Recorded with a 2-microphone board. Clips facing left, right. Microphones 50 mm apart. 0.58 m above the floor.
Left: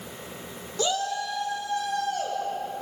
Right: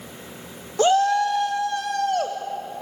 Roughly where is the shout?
Right.